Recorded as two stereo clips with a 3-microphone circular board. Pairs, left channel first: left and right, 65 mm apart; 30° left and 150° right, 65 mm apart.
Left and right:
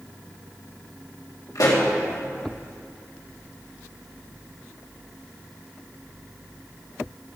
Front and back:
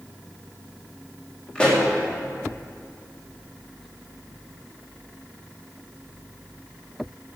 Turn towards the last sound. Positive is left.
turn(degrees=105)